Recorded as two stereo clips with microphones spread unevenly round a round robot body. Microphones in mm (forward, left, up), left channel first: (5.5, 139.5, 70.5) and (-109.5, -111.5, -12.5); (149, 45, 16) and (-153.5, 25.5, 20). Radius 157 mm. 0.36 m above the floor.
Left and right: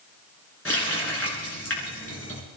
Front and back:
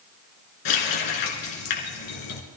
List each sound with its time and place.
0.7 s a running tap: 20° right, 3 m